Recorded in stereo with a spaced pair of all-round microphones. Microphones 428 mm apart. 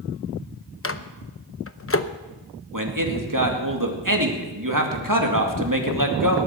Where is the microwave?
30° left (ahead or behind), 0.7 m.